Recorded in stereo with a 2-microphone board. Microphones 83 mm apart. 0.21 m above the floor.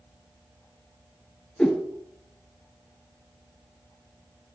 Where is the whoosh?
10° left (ahead or behind), 1.4 m.